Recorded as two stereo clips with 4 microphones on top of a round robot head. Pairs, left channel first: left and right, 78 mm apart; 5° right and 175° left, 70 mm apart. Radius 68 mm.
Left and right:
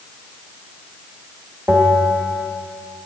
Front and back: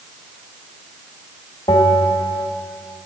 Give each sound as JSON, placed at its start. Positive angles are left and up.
{"t": 1.7, "sound": "a bell", "azimuth_deg": -15, "distance_m": 1.2}